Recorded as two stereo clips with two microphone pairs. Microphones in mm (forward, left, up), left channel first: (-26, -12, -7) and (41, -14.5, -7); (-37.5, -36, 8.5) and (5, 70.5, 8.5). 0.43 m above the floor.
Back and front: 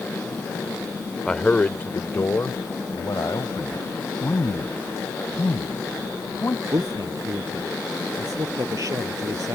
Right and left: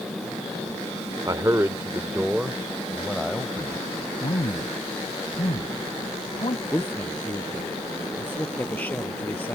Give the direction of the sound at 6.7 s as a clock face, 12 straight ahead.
1 o'clock.